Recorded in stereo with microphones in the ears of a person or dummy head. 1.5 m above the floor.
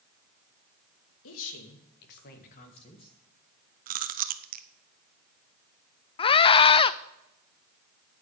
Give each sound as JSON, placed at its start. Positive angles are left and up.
{"t": 1.2, "sound": "a woman speaking", "side_deg": 85, "distance_m": 2.5}
{"t": 3.9, "sound": "chewing", "side_deg": -45, "distance_m": 0.8}
{"t": 6.2, "sound": "a scream", "side_deg": 30, "distance_m": 0.6}